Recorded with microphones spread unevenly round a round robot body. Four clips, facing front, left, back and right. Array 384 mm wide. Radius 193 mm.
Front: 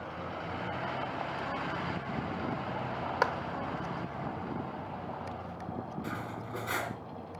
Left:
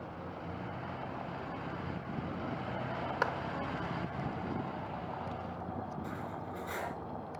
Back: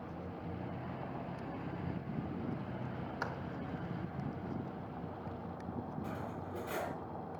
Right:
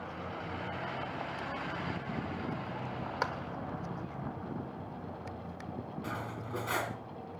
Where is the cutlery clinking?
60° right, 3 m.